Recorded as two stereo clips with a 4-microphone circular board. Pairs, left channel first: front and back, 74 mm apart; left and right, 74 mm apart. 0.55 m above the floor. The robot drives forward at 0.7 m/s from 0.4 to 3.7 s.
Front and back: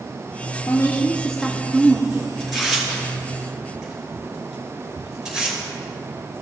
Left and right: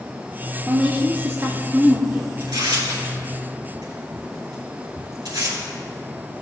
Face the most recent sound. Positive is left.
turn(degrees=-100)